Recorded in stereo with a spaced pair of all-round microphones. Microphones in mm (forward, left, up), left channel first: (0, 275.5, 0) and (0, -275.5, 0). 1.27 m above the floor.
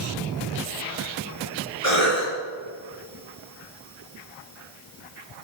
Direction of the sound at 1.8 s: 85° left.